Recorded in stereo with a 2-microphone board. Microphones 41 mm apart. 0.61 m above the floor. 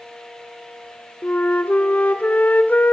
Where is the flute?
45° left (ahead or behind), 2 m.